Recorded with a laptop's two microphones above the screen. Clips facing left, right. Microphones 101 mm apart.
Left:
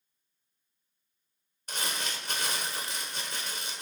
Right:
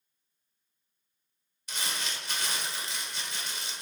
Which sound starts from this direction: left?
Crumpling, at 1.7 s.